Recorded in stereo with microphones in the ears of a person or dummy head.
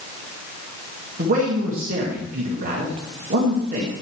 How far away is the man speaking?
About 2 m.